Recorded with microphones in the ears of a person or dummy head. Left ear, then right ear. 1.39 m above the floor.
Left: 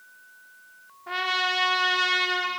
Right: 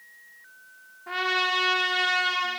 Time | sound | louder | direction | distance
1.1 | a trumpet | even | 5° left (ahead or behind) | 1.4 m